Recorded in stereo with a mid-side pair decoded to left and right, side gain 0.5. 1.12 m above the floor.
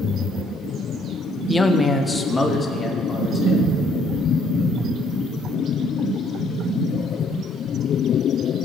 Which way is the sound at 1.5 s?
15° left.